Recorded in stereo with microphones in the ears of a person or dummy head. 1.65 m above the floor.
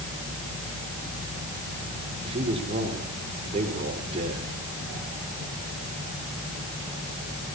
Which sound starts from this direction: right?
A man speaking, at 2.2 s.